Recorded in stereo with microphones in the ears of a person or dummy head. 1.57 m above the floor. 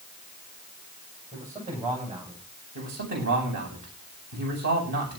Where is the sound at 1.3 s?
30° right (ahead or behind), 9.5 m.